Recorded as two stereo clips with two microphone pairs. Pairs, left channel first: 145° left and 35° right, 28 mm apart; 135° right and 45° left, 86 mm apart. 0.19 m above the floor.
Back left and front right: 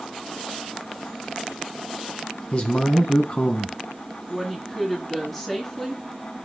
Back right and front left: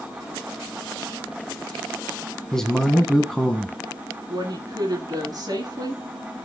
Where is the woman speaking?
65° left, 2.5 m.